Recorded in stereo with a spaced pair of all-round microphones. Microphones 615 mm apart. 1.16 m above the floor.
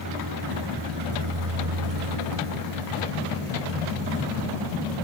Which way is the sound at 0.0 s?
30° right (ahead or behind).